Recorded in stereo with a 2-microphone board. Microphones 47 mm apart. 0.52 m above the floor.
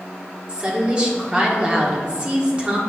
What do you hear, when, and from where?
0.5 s a woman speaking: 20° right (ahead or behind), 1.5 m